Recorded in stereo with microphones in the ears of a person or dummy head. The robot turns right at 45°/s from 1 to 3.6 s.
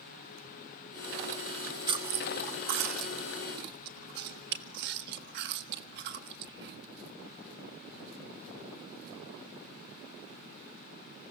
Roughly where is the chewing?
Centre.